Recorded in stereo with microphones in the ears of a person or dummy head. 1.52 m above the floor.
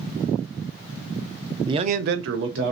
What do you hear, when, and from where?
1.7 s a man speaking: 25° right (ahead or behind), 0.6 m; by 2.7 s 65° right (ahead or behind), 1.1 m